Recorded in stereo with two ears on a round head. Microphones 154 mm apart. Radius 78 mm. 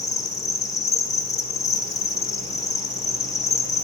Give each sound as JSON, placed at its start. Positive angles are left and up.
{"t": 0.0, "sound": "an insect", "side_deg": 20, "distance_m": 1.3}